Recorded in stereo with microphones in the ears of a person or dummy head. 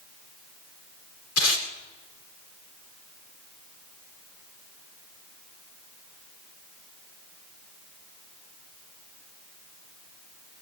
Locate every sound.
1.4 s tape being pulled: 85° left, 5.5 m